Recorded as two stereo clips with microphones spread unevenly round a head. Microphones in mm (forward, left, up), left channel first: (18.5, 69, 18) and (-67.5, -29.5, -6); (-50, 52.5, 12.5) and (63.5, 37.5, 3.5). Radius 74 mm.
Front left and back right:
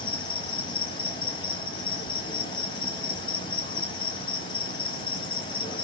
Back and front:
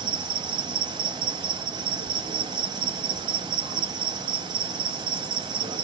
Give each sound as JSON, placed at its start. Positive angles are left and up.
{"t": 0.0, "sound": "an insect", "azimuth_deg": 30, "distance_m": 0.9}